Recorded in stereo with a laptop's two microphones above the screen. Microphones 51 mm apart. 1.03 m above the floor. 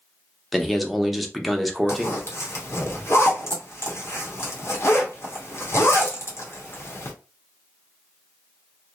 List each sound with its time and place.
0.5 s a man speaking: centre (ahead or behind), 0.6 m
1.9 s a zipper: 55° left (ahead or behind), 0.8 m